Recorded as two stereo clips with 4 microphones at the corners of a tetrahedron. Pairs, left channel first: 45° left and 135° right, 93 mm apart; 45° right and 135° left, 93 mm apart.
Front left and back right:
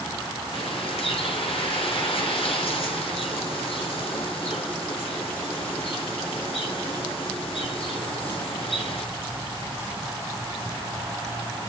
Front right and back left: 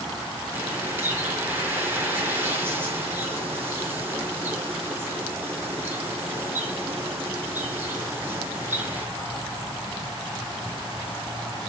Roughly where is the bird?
Ahead left.